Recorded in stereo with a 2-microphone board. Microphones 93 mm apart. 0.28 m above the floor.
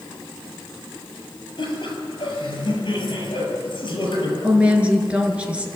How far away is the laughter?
About 7.5 m.